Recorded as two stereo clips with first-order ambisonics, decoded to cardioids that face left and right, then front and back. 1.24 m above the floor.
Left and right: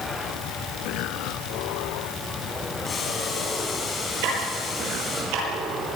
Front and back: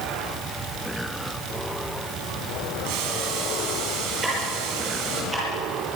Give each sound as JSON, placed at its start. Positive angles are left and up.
{"t": 2.8, "sound": "boiling", "azimuth_deg": 165, "distance_m": 5.5}
{"t": 4.2, "sound": "ticking", "azimuth_deg": -105, "distance_m": 8.0}